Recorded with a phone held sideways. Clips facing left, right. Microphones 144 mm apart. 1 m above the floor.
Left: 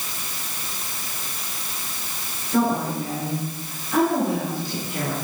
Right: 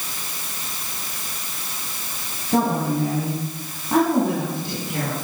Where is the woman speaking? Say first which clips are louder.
Right 1 dB; 60° right (ahead or behind), 6 m; by 5.2 s 85° right, 8.5 m.